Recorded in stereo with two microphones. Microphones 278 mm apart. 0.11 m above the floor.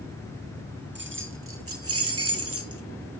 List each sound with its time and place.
0.9 s keys jangling: 40° right (ahead or behind), 1.2 m; by 2.8 s 55° right (ahead or behind), 1.6 m